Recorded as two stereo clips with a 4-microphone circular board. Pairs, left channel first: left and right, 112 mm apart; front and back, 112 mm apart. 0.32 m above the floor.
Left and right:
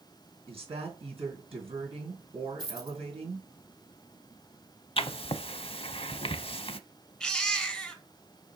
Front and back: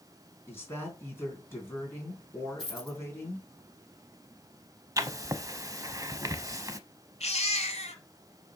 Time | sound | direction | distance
0.5 | a woman speaking | 65° right | 3.5 m
2.6 | a dropped coin | 45° right | 2.5 m
5.0 | writing | 120° left | 0.6 m
7.2 | a baby crying | 5° left | 1.4 m